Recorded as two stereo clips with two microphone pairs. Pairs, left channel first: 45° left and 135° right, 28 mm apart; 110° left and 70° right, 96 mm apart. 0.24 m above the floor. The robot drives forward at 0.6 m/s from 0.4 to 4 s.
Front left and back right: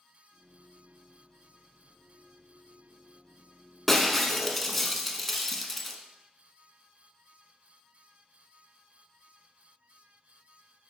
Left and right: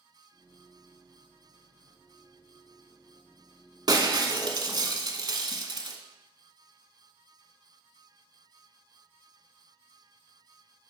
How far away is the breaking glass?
About 1.0 m.